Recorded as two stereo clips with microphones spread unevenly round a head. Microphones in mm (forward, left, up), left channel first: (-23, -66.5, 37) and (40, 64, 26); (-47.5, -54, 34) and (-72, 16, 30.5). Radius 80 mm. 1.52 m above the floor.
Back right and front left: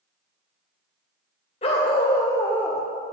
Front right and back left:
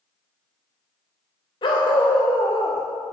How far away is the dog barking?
About 2.5 m.